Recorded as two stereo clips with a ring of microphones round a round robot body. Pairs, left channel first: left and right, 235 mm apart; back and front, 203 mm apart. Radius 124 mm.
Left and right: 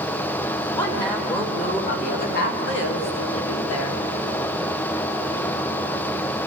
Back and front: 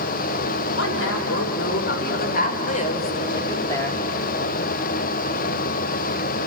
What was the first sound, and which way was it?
A woman speaking, 165° left.